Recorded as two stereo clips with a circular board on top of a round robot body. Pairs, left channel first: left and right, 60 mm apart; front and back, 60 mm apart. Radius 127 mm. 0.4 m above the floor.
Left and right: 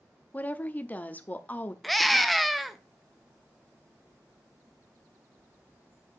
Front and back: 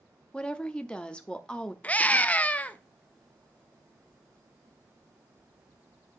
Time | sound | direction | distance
0.3 | a woman speaking | 60° left | 0.9 m
1.8 | a scream | straight ahead | 1.0 m